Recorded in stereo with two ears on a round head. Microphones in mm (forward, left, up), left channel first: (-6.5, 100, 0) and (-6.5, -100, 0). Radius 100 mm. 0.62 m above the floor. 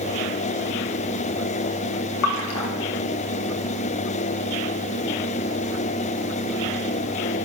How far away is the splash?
About 1.9 m.